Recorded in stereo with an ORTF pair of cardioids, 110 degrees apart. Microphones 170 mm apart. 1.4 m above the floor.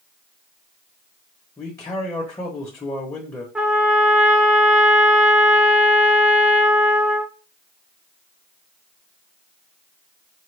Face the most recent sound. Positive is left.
turn(degrees=-5)